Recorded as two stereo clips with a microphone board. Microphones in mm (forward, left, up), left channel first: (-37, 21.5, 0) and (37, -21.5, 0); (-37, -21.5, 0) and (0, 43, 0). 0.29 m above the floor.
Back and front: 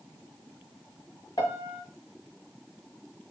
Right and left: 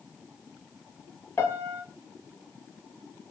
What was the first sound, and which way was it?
A piano, 175° right.